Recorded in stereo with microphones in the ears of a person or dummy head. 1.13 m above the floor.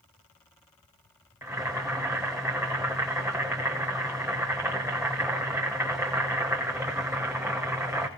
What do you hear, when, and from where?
1.4 s boiling: 5° right (ahead or behind), 1.1 m